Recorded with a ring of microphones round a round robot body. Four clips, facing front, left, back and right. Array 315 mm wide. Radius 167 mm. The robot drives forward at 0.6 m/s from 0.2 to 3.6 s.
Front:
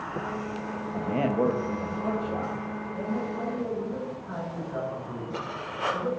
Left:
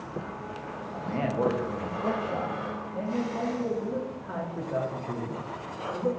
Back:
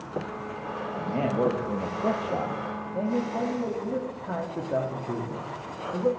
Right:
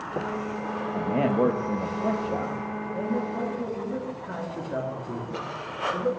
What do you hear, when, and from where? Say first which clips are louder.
0.9 s a man speaking: right 5 dB, front 1 dB; 60° right, 0.8 m; by 6.1 s 165° right, 1.6 m